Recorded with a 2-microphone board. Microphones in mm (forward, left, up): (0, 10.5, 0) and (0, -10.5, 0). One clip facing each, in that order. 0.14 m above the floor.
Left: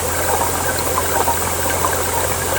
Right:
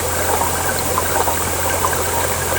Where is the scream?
I don't hear a scream.